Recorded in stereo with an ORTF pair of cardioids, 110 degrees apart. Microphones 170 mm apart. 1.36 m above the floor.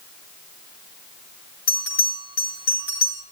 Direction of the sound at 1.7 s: 60° left.